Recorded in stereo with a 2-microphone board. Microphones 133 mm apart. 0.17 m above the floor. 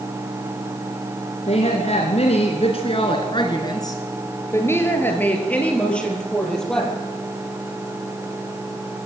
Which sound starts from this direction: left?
A woman speaking, at 1.5 s.